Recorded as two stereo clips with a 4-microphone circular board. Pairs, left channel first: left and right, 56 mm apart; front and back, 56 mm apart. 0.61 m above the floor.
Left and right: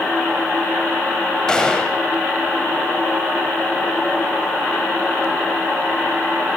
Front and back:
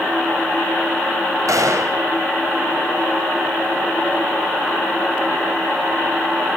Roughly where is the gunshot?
Behind.